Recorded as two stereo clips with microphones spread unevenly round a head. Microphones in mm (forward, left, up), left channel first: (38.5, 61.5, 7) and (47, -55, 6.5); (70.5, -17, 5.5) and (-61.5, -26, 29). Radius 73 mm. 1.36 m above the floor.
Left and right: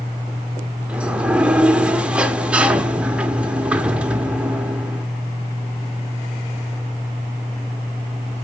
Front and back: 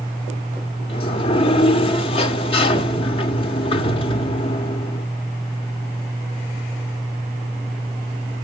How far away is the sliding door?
About 1.0 m.